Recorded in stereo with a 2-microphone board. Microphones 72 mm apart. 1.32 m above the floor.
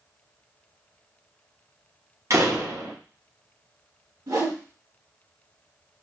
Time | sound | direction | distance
2.3 | a door slam | 50° right (ahead or behind) | 0.8 m
4.3 | a whoosh | 75° right (ahead or behind) | 2.5 m